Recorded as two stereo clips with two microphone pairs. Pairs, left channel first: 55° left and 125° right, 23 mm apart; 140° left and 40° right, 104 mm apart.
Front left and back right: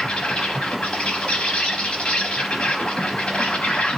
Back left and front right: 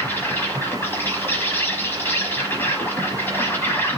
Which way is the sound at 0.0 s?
75° left.